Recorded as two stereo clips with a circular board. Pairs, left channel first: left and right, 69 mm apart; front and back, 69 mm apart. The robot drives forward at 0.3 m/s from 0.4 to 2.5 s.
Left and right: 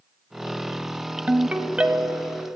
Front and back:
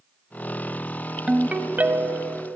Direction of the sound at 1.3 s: 125° right.